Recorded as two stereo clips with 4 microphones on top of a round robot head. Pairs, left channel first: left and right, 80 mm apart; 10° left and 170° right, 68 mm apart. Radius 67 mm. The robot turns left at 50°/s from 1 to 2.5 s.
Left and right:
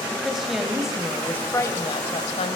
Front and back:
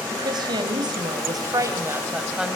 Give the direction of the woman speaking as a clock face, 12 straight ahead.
6 o'clock.